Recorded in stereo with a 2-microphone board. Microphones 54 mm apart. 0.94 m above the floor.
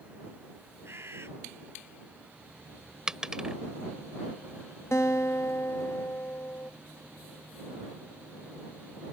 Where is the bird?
55° right (ahead or behind).